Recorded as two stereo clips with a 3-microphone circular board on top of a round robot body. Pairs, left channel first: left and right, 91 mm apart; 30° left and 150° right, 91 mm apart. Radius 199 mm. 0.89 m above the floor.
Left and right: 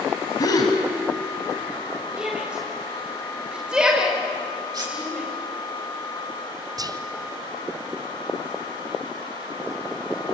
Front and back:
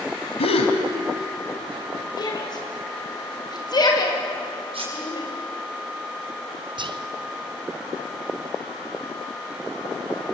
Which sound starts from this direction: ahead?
A shout, at 2.2 s.